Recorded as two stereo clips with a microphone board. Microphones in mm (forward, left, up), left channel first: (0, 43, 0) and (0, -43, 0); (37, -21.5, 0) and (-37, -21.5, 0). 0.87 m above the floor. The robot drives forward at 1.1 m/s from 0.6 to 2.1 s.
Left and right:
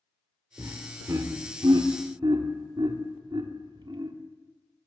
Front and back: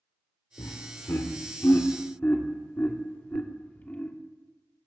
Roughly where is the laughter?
Ahead right.